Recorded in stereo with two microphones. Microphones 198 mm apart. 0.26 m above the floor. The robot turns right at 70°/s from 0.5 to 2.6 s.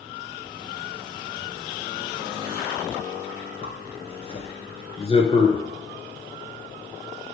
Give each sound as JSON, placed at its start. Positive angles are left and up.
{"t": 3.6, "sound": "a zipper", "side_deg": 30, "distance_m": 1.1}